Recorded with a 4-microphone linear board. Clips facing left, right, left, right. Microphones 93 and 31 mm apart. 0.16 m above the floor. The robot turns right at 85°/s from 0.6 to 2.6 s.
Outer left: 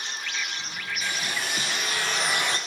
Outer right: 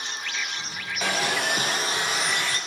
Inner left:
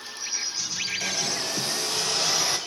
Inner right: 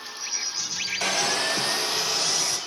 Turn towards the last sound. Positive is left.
turn(degrees=30)